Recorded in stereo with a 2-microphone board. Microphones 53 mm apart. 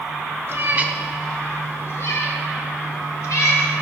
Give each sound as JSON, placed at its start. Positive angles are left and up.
{"t": 0.5, "sound": "a cat meowing", "side_deg": -50, "distance_m": 1.0}